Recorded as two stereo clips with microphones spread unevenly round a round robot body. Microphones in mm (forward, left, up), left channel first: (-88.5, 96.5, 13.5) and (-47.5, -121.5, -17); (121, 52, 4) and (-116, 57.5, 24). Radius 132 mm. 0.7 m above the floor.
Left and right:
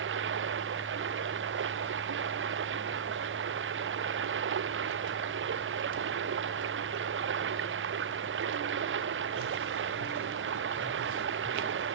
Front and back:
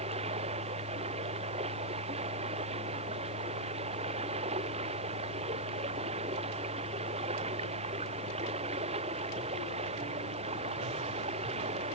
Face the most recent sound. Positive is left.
turn(degrees=-110)